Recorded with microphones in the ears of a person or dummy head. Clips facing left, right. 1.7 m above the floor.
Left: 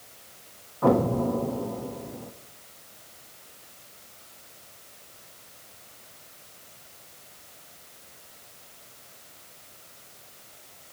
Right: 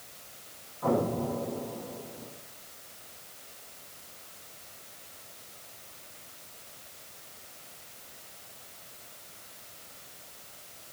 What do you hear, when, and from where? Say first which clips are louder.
0.8 s an explosion: left 6 dB; 65° left (ahead or behind), 1.2 m